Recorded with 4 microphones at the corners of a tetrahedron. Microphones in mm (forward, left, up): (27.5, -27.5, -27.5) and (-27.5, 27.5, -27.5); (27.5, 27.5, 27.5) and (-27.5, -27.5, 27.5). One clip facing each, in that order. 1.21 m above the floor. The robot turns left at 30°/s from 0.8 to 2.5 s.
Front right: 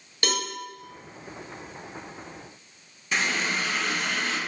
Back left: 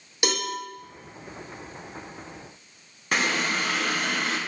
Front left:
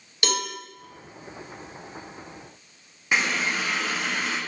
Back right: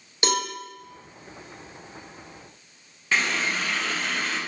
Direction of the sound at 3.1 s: 115° left.